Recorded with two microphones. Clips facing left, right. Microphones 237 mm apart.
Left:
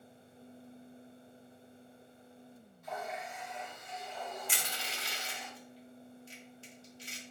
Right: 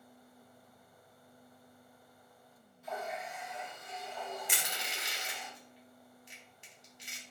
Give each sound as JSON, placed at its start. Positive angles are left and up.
{"t": 2.8, "sound": "a running tap", "side_deg": -10, "distance_m": 2.0}
{"t": 4.5, "sound": "crushing", "side_deg": -15, "distance_m": 0.9}